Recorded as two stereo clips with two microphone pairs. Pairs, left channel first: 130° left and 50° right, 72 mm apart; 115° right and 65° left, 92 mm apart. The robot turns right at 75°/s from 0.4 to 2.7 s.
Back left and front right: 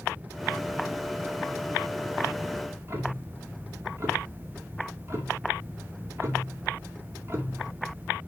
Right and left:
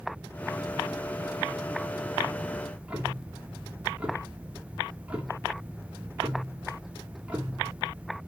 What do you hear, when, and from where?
2.5 s ticking: 20° right, 2.0 m; by 8.2 s 5° right, 2.0 m